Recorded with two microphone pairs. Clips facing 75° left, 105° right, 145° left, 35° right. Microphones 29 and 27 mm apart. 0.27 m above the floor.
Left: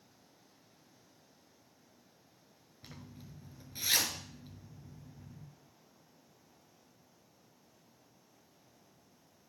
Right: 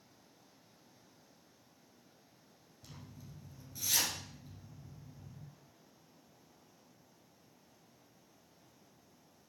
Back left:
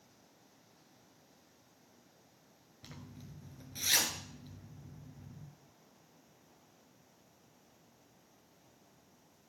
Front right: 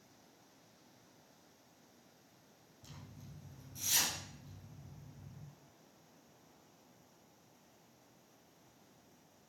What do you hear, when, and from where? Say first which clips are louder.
2.8 s a zipper: left 2 dB, back left 4 dB; 115° left, 1.7 m